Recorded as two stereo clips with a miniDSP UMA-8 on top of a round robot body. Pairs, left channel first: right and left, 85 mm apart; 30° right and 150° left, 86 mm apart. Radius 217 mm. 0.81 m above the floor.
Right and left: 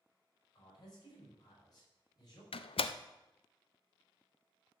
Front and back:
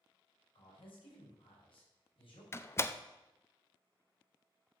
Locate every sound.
0.6 s a man speaking: 45° right, 5.5 m
2.5 s a door slam: 90° right, 0.6 m